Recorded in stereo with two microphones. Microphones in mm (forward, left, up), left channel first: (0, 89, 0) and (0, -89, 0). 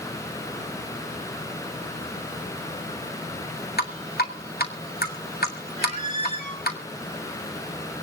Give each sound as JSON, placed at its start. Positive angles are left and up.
{"t": 3.8, "sound": "dripping", "side_deg": 65, "distance_m": 2.0}
{"t": 5.8, "sound": "a squeak", "side_deg": 45, "distance_m": 6.5}